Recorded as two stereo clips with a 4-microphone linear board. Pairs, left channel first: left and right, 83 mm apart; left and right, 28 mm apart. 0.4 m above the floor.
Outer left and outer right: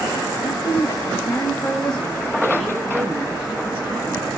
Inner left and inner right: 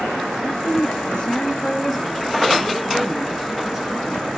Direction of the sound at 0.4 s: 55° left (ahead or behind).